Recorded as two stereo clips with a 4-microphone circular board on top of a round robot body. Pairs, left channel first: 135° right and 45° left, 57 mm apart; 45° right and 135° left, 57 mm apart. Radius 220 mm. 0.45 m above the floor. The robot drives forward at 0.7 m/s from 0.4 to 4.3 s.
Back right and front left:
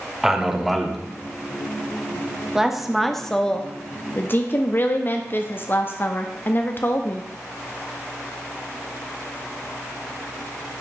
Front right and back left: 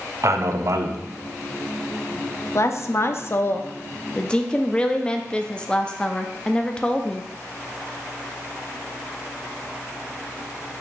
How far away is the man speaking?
About 1.5 m.